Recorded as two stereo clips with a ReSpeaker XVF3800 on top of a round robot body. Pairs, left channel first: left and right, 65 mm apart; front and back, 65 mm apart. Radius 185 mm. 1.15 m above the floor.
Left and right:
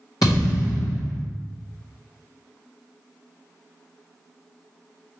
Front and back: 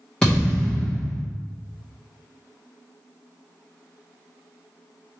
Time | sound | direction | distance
0.2 | a thud | 80° left | 0.6 m